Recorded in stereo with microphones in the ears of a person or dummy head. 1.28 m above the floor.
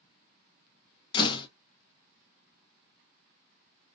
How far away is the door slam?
About 0.5 m.